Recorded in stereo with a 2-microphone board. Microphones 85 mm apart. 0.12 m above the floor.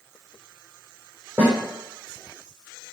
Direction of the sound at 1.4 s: 20° right (ahead or behind).